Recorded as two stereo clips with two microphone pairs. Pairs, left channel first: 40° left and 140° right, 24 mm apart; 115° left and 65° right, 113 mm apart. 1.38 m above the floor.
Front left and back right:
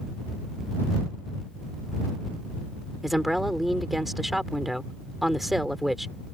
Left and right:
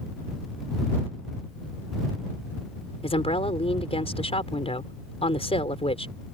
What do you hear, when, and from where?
3.0 s a woman speaking: 140° left